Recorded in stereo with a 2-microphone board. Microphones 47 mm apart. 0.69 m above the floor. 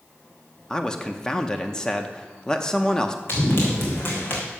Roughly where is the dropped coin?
I don't hear a dropped coin.